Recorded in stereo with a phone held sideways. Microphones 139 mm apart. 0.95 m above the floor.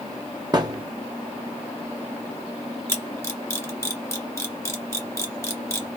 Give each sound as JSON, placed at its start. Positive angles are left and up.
{"t": 0.5, "sound": "a thud", "side_deg": -30, "distance_m": 1.6}
{"t": 2.9, "sound": "a camera shutter", "side_deg": 20, "distance_m": 1.8}